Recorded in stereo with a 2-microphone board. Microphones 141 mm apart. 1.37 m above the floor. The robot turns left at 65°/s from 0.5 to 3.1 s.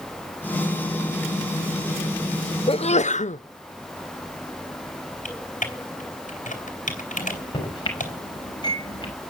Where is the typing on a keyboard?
65° left (ahead or behind), 4 m.